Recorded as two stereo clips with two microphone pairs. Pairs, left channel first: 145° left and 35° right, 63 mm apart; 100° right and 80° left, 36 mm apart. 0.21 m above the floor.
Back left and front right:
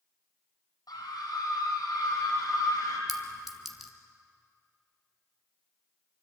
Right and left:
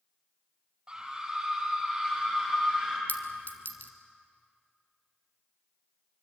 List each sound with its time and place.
0.9 s a scream: 155° left, 8 m; by 3.0 s 170° left, 10 m
3.1 s a clink: 120° right, 1.9 m